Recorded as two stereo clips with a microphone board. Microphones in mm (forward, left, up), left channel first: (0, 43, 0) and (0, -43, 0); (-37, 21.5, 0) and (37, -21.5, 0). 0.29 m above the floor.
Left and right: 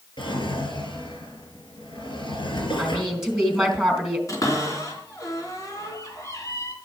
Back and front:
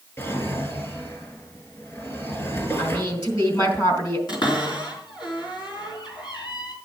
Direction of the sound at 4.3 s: 135° left.